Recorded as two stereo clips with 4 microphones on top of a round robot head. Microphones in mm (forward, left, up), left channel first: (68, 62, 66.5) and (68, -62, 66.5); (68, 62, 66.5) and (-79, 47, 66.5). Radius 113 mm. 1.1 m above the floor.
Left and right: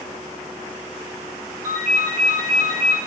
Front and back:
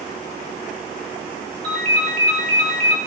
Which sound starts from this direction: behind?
A ringtone, at 1.6 s.